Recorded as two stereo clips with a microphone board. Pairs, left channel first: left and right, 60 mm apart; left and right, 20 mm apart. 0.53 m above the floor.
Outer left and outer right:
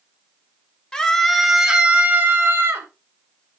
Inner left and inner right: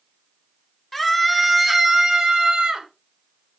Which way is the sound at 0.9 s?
10° left (ahead or behind).